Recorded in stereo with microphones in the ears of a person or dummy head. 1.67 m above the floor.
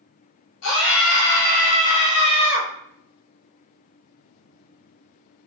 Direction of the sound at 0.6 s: 70° left (ahead or behind).